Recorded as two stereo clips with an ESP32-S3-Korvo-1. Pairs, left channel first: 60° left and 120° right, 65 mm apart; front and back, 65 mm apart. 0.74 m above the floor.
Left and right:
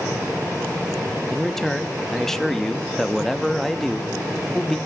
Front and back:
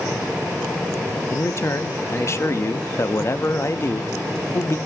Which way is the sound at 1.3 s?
25° right.